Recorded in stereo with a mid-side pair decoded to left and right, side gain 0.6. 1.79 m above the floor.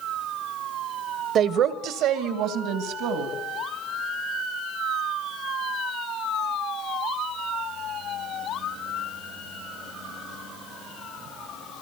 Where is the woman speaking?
50° right, 1.5 m; by 3.3 s 75° right, 3.5 m.